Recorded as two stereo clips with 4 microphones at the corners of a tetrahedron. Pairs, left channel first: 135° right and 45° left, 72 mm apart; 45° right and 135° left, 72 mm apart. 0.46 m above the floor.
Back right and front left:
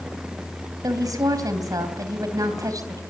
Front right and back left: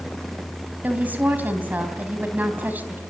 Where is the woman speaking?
70° left, 3.5 m.